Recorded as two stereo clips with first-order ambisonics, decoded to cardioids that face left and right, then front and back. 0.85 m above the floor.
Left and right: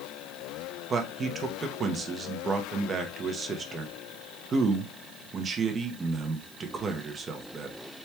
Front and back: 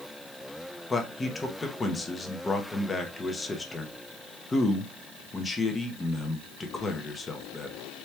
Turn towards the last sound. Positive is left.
turn(degrees=-60)